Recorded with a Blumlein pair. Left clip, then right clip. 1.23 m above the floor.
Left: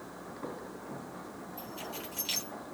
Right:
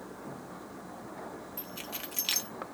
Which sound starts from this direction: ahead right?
Keys jangling, at 1.6 s.